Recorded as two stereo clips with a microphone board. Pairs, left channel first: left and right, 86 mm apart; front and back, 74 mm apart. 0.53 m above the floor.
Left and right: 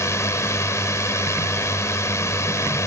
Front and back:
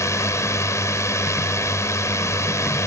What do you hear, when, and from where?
0.0 s a drone: 40° left